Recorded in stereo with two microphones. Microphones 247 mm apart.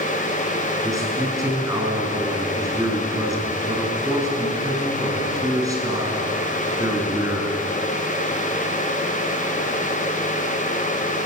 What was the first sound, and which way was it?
A man speaking, 15° right (ahead or behind).